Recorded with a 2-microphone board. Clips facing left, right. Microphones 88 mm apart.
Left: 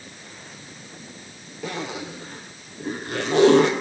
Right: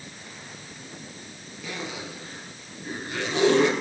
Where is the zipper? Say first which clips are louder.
Left 5 dB; 65° left (ahead or behind), 4.5 m.